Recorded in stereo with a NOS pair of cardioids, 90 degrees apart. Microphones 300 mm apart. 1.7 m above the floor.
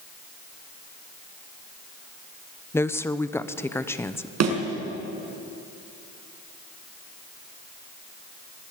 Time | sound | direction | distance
2.7 | a woman speaking | 10° left | 0.9 m
4.4 | a thud | 60° right | 5 m